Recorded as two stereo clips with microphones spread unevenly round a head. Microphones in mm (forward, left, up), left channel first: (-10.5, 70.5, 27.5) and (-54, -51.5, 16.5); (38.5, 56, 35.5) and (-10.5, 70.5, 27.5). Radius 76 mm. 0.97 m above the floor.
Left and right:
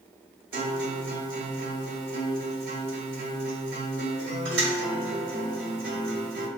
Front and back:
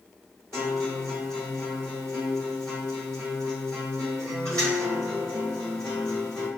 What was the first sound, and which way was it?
A guitar, 95° right.